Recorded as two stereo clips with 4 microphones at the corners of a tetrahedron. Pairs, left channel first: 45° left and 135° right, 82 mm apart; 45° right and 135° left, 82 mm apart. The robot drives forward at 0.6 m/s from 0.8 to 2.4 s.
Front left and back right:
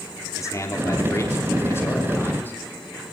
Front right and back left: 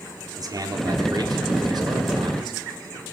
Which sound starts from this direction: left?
A man speaking, at 0.4 s.